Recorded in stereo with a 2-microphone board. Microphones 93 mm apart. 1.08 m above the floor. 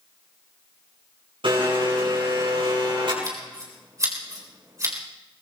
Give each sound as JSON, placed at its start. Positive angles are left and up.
{"t": 1.4, "sound": "a blender", "side_deg": -70, "distance_m": 5.5}
{"t": 3.2, "sound": "scissors", "side_deg": -35, "distance_m": 3.5}